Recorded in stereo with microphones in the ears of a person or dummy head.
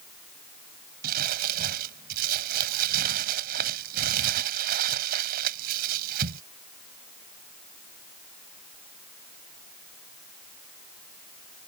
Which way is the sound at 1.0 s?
50° right (ahead or behind).